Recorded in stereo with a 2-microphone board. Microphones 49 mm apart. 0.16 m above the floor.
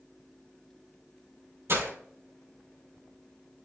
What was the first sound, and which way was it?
Breaking glass, 65° right (ahead or behind).